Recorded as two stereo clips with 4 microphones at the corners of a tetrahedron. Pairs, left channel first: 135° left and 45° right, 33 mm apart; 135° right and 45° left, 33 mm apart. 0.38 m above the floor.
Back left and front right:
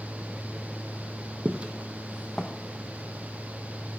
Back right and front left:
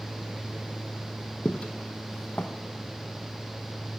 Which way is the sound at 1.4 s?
85° right.